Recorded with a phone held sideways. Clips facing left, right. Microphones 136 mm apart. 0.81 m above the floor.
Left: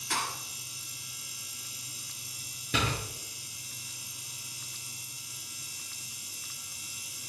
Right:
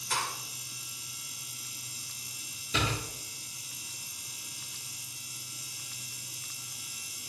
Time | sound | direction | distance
0.1 | a thud | 70° left (ahead or behind) | 3.5 m
2.7 | a door slam | 65° left (ahead or behind) | 7.5 m